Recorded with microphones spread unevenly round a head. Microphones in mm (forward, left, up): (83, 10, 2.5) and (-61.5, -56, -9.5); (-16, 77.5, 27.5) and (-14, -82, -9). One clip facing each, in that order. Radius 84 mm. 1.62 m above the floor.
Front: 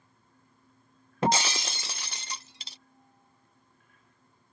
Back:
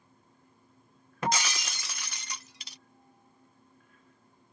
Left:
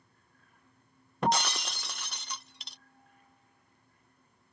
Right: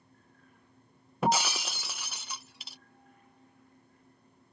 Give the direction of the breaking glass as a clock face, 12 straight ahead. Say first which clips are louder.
Front 4 dB, right 1 dB; 11 o'clock.